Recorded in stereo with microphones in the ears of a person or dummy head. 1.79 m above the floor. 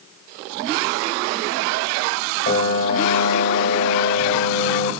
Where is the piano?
50° left (ahead or behind), 3 m.